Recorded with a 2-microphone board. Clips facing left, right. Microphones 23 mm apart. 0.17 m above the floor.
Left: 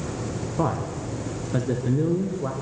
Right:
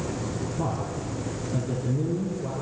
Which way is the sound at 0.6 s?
60° left (ahead or behind).